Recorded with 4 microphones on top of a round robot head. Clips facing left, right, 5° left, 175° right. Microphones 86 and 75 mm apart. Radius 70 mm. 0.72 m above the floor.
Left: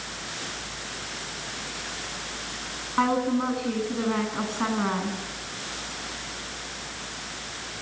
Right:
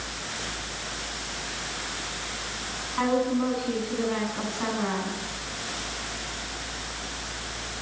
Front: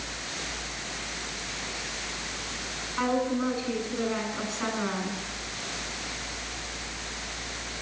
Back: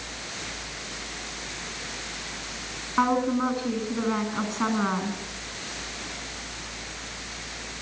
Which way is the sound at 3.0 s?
150° left.